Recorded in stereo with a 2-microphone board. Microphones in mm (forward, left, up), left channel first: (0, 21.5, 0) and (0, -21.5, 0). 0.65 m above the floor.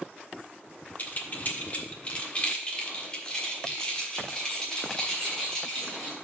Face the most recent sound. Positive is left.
turn(degrees=15)  # may be behind; listen again after turning